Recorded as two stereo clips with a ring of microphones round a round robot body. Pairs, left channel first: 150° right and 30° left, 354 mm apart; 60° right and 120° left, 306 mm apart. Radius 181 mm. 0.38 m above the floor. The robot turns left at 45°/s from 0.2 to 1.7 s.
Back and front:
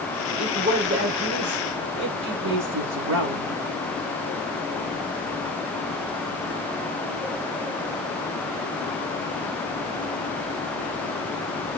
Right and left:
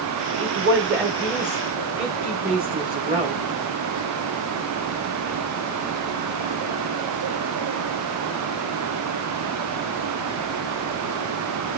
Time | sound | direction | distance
0.4 | a woman speaking | 115° left | 1.6 m